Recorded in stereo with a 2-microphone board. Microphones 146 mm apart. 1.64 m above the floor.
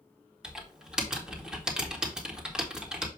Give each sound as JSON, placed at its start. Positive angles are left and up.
{"t": 0.4, "sound": "typing on a keyboard", "side_deg": -5, "distance_m": 1.6}